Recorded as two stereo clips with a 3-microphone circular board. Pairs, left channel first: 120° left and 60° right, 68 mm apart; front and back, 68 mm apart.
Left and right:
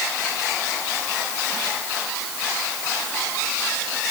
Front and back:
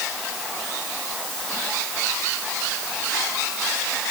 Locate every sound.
Only background noise.